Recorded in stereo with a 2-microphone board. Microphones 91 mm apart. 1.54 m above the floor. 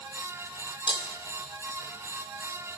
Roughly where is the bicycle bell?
No bicycle bell in this recording.